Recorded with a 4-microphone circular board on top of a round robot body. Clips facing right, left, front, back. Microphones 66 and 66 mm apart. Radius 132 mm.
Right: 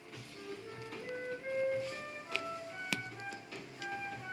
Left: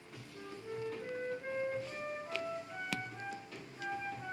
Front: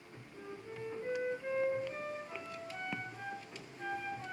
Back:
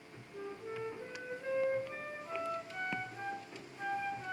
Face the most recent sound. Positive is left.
turn(degrees=150)